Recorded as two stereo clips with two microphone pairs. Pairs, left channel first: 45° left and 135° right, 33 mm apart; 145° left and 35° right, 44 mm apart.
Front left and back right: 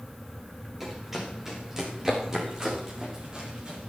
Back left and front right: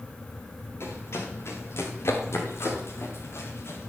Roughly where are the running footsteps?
Behind left.